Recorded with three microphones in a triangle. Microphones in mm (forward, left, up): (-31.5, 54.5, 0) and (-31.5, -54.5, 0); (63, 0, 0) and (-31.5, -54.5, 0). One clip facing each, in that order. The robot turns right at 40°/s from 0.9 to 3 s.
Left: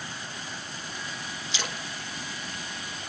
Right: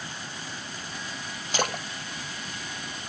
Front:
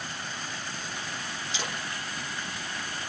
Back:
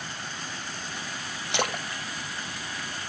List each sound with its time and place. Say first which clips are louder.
1.5 s a splash: right 9 dB, back 9 dB; 130° right, 0.6 m; by 1.8 s 120° right, 0.6 m